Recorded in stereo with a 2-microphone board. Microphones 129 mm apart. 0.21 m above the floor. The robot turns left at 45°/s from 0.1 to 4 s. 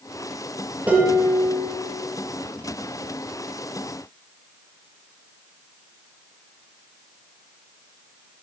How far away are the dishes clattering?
About 4 m.